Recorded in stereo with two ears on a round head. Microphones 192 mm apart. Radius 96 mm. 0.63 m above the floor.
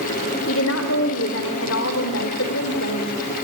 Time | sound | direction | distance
0.5 | a woman speaking | 65° left (ahead or behind) | 2.5 m